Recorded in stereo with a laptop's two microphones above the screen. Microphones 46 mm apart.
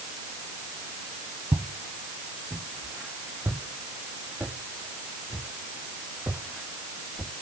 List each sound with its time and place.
1.5 s footsteps: 55° right (ahead or behind), 1.8 m; by 7.3 s 25° right (ahead or behind), 5 m